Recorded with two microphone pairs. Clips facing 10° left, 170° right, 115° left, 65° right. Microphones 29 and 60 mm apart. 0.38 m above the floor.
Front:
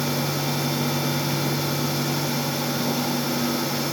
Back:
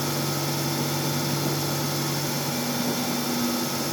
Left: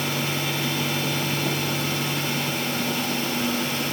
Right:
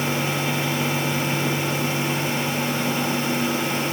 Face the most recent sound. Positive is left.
No sound to turn to.